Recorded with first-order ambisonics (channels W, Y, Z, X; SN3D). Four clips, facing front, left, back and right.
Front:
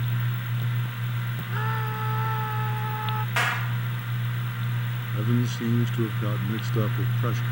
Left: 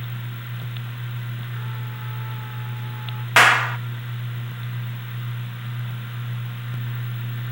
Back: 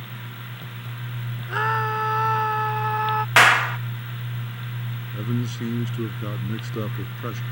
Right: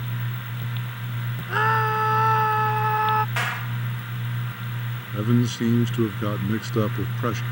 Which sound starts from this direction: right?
A man speaking, at 5.1 s.